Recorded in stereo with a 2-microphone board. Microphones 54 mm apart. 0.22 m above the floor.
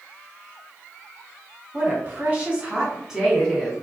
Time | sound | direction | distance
1.7 | a woman speaking | 40° right (ahead or behind) | 1.6 m